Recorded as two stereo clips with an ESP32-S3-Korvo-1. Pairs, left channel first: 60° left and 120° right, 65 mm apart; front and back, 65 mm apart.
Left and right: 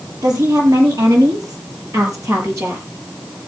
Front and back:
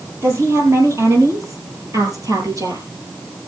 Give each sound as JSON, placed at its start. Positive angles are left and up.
{"t": 0.2, "sound": "a woman speaking", "azimuth_deg": -130, "distance_m": 5.0}